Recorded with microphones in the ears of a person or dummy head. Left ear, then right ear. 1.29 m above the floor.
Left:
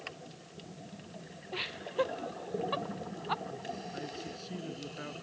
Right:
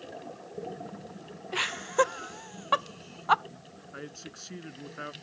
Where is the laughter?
50° right (ahead or behind).